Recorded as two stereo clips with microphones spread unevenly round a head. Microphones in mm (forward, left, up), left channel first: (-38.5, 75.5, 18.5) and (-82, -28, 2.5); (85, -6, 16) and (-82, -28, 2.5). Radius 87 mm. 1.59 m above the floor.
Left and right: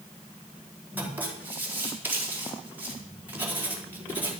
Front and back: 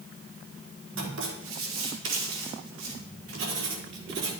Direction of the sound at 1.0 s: 175° left.